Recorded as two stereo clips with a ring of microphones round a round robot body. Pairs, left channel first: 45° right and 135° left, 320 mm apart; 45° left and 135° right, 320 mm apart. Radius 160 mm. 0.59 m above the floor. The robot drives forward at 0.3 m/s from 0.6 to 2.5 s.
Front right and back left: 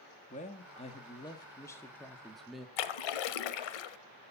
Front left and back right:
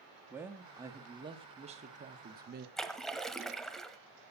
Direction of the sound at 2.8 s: 45° right.